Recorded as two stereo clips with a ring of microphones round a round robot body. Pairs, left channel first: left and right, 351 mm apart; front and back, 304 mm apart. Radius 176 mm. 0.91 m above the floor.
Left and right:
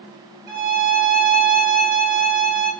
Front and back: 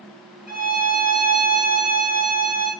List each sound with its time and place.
0.5 s a violin: 50° right, 4 m